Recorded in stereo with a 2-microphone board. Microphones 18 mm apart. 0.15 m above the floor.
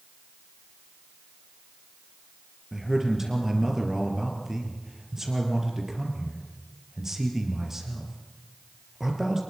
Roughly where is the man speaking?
Right.